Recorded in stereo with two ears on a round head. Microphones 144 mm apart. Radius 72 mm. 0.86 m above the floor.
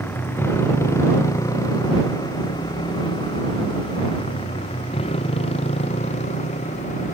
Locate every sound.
0.0 s a motorcycle: 15° left (ahead or behind); by 7.2 s 45° left (ahead or behind)